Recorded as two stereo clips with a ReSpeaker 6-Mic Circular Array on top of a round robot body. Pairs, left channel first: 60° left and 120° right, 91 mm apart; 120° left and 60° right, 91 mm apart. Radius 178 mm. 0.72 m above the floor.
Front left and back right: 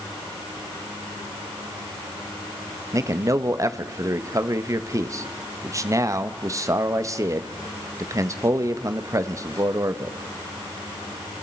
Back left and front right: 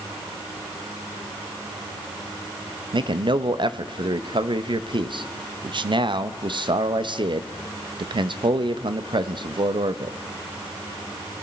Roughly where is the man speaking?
Right.